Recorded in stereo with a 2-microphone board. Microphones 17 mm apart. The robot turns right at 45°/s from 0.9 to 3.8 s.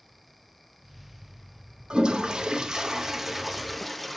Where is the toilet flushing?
85° right, 0.9 m; by 4.2 s straight ahead, 0.9 m.